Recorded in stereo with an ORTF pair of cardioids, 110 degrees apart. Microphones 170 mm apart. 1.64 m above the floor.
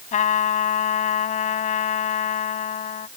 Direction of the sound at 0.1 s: 50° left.